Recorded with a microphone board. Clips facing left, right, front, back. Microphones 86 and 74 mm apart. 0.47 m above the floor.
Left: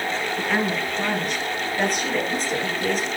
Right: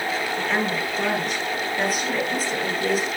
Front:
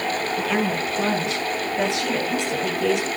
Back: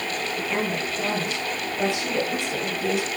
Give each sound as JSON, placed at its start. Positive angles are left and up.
{"t": 0.4, "sound": "a woman speaking", "azimuth_deg": 5, "distance_m": 7.0}